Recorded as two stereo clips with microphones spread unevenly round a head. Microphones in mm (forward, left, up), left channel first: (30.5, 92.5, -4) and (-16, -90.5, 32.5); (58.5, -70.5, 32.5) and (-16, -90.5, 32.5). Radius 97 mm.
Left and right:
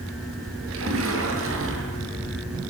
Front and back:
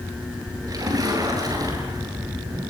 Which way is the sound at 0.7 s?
125° right.